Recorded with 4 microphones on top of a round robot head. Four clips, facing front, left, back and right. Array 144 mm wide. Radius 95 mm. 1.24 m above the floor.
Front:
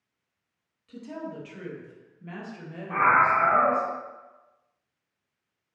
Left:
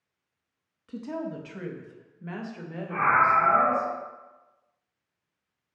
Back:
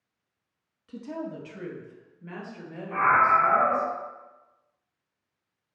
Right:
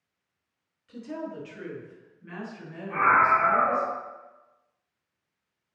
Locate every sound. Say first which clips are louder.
0.9 s a woman speaking: left 2 dB, back 2 dB; 105° left, 1.8 m; by 3.9 s 65° left, 2.5 m
2.9 s a scream: right 1 dB, even; 15° left, 1.9 m